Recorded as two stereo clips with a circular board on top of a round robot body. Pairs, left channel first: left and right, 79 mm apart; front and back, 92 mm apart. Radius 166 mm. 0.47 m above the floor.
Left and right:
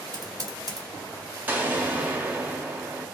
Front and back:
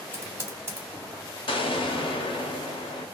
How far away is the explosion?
About 0.9 m.